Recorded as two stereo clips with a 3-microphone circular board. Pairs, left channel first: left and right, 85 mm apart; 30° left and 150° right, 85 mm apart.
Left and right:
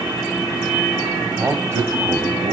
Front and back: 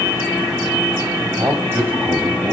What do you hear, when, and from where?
1.4 s a man speaking: 130° right, 1.1 m; by 2.5 s 70° right, 1.1 m